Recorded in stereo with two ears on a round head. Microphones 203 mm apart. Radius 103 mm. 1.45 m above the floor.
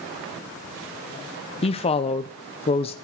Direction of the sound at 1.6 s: 25° left (ahead or behind).